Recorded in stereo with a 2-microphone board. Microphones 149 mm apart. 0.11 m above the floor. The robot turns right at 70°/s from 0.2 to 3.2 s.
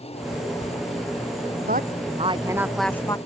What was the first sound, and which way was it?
A woman speaking, 80° right.